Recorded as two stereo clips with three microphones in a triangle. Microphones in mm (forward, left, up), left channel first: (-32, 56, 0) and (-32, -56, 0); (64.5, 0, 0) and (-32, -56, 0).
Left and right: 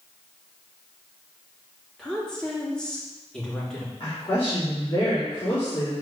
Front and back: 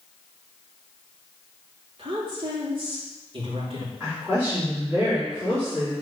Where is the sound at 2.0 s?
175° left, 3.5 m.